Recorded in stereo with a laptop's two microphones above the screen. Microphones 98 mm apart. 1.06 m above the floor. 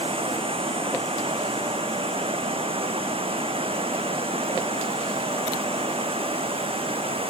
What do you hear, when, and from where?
0.0 s running water: 75° right (ahead or behind)